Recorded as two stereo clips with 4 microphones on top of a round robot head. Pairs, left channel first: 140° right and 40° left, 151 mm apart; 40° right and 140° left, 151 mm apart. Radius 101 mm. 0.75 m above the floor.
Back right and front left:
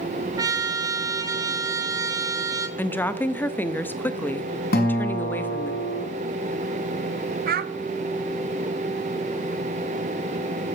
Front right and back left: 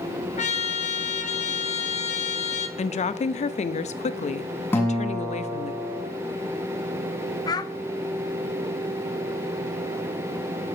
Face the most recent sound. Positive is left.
turn(degrees=25)